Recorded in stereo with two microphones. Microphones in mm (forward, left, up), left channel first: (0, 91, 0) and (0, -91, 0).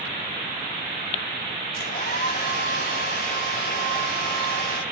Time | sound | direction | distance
1.8 | a hair dryer | 55° left (ahead or behind) | 1.5 m